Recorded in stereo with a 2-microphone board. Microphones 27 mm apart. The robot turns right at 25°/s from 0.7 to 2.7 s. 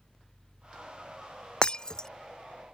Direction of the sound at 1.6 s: 35° left (ahead or behind).